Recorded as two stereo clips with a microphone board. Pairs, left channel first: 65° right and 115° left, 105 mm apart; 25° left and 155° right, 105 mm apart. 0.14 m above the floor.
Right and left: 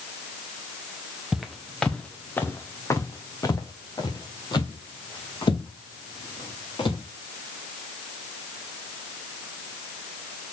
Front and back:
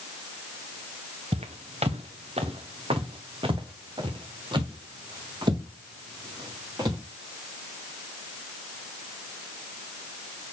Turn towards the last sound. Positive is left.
turn(degrees=-105)